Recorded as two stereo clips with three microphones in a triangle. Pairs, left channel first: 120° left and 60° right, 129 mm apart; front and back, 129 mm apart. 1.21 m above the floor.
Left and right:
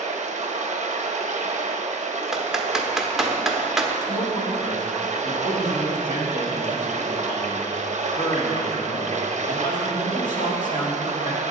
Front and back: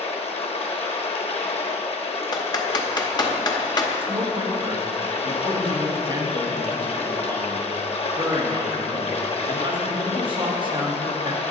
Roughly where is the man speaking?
Behind left.